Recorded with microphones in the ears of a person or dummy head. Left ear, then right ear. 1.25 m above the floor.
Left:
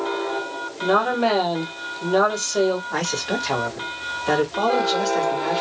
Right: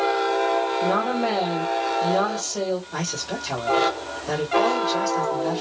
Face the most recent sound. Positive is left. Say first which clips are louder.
# left 5 dB
turn(degrees=50)  # may be behind; listen again after turning